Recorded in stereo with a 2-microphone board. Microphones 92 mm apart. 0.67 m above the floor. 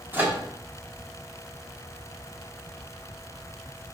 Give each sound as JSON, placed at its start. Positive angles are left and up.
{"t": 0.1, "sound": "a microwave", "side_deg": -20, "distance_m": 0.8}